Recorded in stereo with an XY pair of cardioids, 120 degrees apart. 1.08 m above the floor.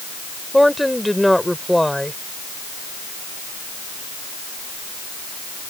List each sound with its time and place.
0.5 s a woman speaking: straight ahead